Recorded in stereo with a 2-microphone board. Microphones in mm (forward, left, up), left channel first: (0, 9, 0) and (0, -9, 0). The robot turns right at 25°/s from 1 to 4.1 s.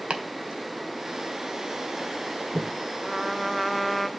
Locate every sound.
0.1 s chopping: 75° right (ahead or behind), 1.7 m; by 2.7 s 55° right (ahead or behind), 1.7 m
3.0 s a trumpet: 10° right (ahead or behind), 0.7 m; by 4.1 s 10° left (ahead or behind), 0.7 m